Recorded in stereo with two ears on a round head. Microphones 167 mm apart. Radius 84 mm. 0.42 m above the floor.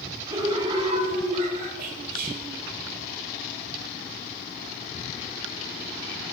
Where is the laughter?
20° right (ahead or behind), 1.4 m; by 1.7 s 45° right (ahead or behind), 1.9 m.